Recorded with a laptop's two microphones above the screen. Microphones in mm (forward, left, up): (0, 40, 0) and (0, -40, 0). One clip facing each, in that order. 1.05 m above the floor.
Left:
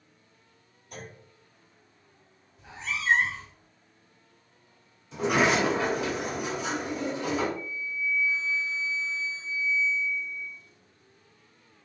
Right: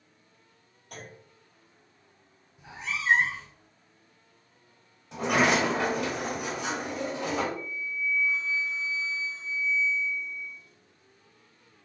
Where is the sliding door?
60° right (ahead or behind), 1.8 m.